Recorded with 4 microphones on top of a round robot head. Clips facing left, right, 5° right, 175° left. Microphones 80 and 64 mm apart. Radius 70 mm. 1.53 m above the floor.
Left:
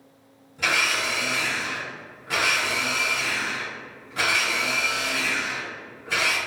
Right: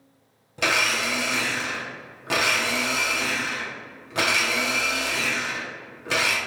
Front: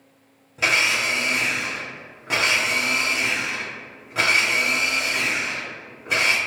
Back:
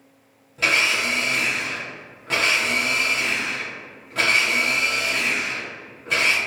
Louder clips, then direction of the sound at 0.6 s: Right 1 dB, even; 85° right.